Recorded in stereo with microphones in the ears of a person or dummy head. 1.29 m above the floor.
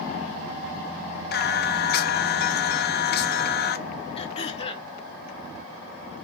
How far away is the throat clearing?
About 1.3 m.